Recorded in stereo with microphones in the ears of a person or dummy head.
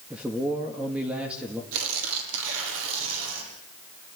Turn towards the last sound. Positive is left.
turn(degrees=-75)  # may be behind; listen again after turning